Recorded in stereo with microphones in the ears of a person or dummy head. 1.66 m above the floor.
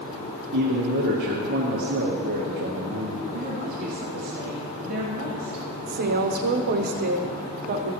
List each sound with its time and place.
0.5 s a man speaking: 50° right (ahead or behind), 1.2 m
3.3 s a woman speaking: 40° right (ahead or behind), 1.4 m
5.9 s a woman speaking: 60° right (ahead or behind), 0.8 m